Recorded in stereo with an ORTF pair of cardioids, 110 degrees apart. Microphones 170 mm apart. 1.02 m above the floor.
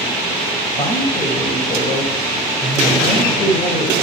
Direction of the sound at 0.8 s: 30° left.